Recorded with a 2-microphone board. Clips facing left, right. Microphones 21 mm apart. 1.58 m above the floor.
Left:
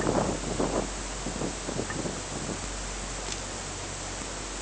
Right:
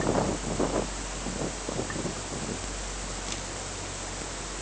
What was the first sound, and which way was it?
Only background noise.